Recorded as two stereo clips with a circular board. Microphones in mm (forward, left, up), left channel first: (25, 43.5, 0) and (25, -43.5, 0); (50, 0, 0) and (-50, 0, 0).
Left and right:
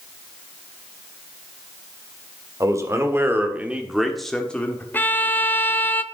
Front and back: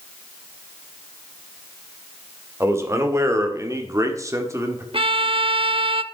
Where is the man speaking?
125° right, 1.7 m; by 4.8 s 140° left, 1.4 m.